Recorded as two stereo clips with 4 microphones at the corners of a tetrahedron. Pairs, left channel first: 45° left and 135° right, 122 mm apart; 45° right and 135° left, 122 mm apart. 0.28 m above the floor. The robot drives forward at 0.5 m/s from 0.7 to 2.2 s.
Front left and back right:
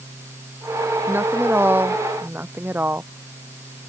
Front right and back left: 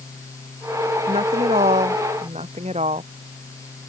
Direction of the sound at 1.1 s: 150° left.